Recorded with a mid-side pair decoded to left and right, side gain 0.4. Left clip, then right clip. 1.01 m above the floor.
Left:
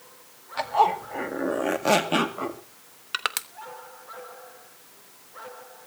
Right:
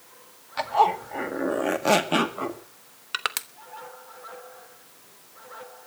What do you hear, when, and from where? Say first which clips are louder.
0.6 s a zipper: even; 10° right, 1.9 m
3.1 s crushing: even; straight ahead, 1.1 m